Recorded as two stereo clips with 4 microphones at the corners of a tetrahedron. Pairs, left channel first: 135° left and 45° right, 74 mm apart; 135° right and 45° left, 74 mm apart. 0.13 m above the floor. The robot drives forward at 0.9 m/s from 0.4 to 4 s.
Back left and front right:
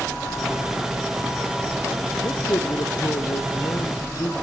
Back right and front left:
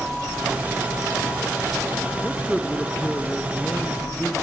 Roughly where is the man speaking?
Behind left.